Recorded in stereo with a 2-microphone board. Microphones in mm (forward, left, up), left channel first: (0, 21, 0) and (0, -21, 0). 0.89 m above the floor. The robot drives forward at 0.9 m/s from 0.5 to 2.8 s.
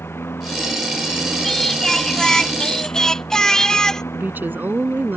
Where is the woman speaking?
55° right (ahead or behind).